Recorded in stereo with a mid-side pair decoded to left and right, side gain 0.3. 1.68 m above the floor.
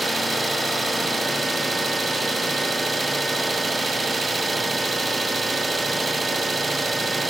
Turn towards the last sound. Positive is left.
turn(degrees=-35)